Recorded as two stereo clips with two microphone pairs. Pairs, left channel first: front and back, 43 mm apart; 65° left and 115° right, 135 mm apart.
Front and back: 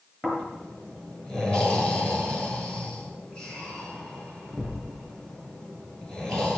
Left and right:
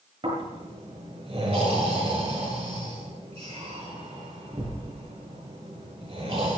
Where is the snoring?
70° right, 7.5 m.